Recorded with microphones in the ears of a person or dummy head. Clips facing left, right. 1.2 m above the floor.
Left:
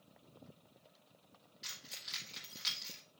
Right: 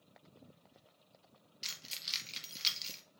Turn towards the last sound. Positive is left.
turn(degrees=-35)  # may be behind; listen again after turning